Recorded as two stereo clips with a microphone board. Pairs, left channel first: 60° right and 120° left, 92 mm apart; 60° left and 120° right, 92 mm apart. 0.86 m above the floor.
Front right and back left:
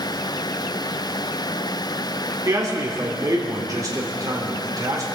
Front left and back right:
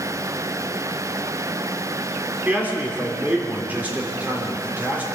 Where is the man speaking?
170° left, 3 m.